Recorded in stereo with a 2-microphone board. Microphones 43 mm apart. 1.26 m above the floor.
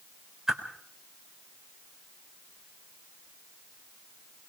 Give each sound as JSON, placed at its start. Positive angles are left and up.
{"t": 0.5, "sound": "a whoosh", "side_deg": -10, "distance_m": 4.0}